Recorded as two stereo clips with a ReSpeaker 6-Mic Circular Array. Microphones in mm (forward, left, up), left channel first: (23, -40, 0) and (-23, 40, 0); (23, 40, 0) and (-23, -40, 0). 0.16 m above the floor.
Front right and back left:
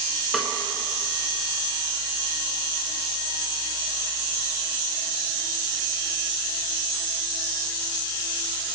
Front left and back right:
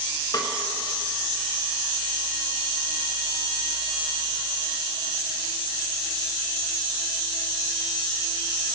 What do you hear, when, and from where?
0.3 s a snare drum: 35° left, 1.3 m